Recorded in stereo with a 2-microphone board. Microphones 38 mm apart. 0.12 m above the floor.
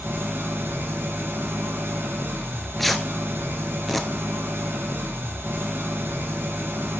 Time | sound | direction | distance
0.0 | an engine running | 75° right (ahead or behind) | 1.3 m
2.4 | tearing paper | 5° left (ahead or behind) | 0.7 m